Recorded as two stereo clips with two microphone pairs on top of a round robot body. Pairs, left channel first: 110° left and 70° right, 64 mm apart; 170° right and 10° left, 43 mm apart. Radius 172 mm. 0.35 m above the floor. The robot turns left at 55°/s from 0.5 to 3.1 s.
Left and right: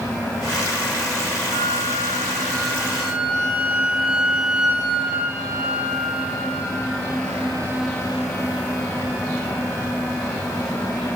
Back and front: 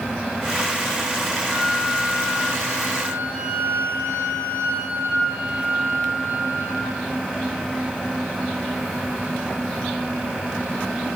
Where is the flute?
85° left, 2.5 m; by 7.0 s straight ahead, 2.5 m.